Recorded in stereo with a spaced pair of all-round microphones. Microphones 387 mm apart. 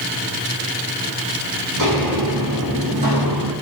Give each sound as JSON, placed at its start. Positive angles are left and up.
{"t": 1.8, "sound": "footsteps", "side_deg": -50, "distance_m": 4.5}